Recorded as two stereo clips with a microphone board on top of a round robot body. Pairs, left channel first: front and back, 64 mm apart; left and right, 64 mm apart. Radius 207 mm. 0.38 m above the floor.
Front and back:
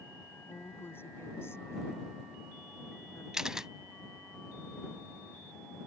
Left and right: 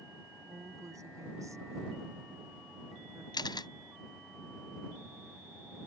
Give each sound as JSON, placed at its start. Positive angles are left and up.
{"t": 0.5, "sound": "a woman speaking", "azimuth_deg": -55}
{"t": 3.3, "sound": "a camera shutter", "azimuth_deg": 100}